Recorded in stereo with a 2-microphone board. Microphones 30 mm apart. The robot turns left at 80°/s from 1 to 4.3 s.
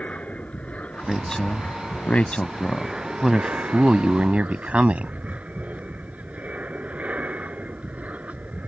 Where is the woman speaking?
5° left (ahead or behind); by 5.1 s 40° right (ahead or behind).